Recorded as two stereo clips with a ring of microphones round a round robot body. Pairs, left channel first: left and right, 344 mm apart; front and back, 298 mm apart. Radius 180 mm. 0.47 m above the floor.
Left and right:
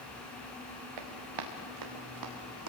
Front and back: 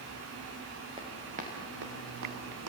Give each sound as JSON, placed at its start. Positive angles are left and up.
{"t": 1.0, "sound": "running footsteps", "azimuth_deg": -100, "distance_m": 3.5}